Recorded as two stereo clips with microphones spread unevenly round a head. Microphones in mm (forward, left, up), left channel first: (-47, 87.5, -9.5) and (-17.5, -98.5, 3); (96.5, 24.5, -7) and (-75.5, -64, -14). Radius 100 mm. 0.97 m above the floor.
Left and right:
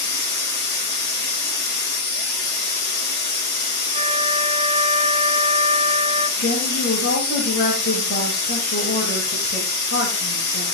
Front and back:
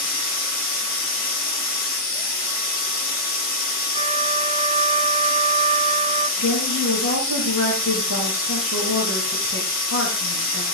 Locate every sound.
0.0 s a machine running: 55° left, 2 m
3.9 s a flute: 125° right, 0.8 m
6.4 s a woman speaking: 50° left, 4.5 m